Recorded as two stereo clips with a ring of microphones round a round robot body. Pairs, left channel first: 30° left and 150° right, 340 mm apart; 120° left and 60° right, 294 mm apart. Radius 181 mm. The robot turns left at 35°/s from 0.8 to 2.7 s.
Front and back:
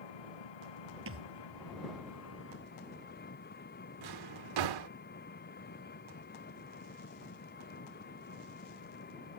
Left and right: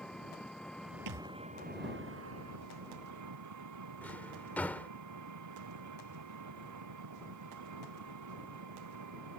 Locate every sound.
0.0 s an engine running: 30° left; by 9.4 s 35° right
1.1 s a thud: 95° right; by 1.3 s 100° right
4.0 s a drawer: 155° right